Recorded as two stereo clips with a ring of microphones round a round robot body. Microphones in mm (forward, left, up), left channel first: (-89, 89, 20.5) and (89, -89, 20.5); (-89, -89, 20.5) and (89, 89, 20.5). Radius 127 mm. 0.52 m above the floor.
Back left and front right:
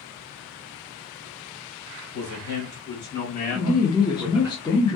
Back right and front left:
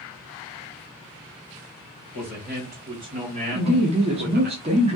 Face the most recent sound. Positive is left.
turn(degrees=80)